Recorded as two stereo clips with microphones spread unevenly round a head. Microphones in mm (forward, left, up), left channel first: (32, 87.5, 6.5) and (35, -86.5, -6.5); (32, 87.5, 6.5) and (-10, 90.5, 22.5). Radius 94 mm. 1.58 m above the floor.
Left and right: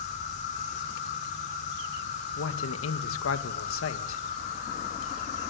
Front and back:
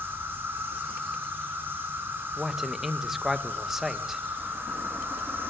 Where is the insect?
145° left, 6.5 m.